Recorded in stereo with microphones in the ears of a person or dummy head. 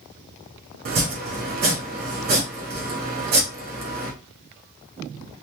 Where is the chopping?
50° right (ahead or behind), 0.6 m.